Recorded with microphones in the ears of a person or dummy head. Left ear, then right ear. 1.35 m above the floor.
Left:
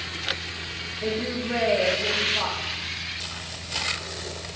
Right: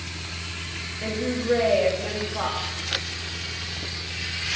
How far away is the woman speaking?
About 3 m.